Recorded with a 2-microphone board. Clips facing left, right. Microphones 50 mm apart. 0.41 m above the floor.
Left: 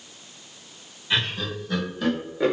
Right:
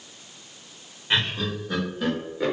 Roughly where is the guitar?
I don't hear a guitar.